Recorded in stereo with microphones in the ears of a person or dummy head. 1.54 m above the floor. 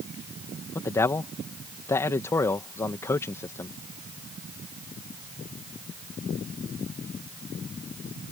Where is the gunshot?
No gunshot in this recording.